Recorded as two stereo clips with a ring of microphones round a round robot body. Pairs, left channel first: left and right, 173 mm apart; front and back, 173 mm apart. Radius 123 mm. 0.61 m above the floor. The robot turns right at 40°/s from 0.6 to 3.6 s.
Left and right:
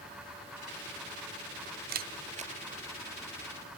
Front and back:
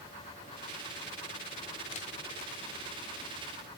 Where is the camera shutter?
60° right, 0.5 m; by 2.5 s 35° right, 0.5 m.